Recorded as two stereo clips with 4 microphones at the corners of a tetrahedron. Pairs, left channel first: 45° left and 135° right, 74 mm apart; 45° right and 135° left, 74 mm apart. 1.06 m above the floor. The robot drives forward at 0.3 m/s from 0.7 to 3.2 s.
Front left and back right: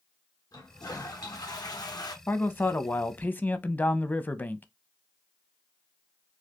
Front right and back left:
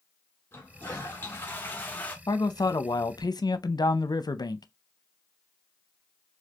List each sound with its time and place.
0.5 s a toilet flushing: 15° left, 1.2 m; by 2.2 s 20° left, 0.8 m
2.3 s a man speaking: 15° right, 0.8 m; by 4.7 s 20° right, 0.5 m